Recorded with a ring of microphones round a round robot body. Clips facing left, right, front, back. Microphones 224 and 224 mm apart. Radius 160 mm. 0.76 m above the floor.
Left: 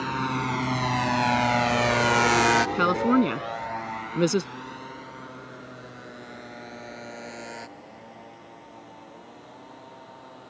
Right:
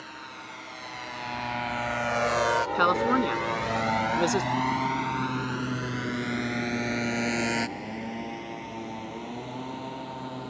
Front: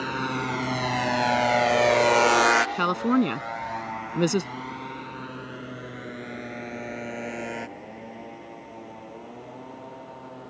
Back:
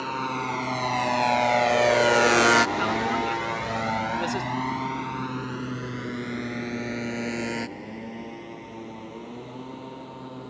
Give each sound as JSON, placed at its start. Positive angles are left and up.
{"t": 0.0, "sound": "a motorcycle", "azimuth_deg": 75}
{"t": 2.8, "sound": "a woman speaking", "azimuth_deg": 30}